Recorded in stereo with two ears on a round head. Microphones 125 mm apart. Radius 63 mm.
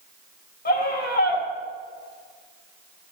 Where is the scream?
65° left (ahead or behind), 2.5 m.